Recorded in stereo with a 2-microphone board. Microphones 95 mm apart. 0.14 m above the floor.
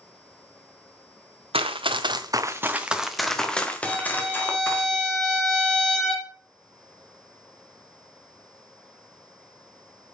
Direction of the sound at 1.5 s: 80° right.